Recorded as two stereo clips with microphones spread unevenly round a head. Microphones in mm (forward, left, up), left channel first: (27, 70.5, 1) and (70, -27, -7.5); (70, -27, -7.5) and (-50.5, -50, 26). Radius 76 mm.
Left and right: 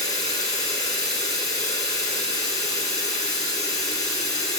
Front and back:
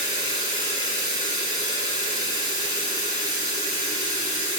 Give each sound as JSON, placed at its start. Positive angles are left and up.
{"t": 0.0, "sound": "running water", "azimuth_deg": 160, "distance_m": 2.5}